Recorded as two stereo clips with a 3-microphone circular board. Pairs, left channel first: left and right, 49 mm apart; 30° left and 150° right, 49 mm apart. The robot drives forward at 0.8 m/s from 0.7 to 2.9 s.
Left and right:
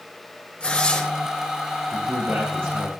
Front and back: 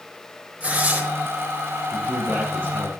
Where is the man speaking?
100° right, 2.5 m; by 2.9 s 120° right, 3 m.